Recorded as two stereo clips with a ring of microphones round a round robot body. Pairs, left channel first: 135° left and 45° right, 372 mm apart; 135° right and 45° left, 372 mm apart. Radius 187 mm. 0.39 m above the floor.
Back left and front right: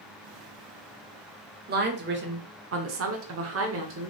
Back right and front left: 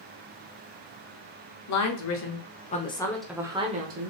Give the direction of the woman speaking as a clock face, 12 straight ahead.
3 o'clock.